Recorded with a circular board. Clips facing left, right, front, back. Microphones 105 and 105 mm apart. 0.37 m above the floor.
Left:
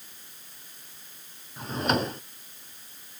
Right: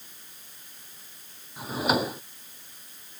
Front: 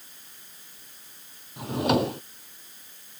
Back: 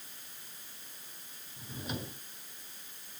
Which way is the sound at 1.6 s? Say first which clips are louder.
Right 1 dB, front 18 dB; 5° right.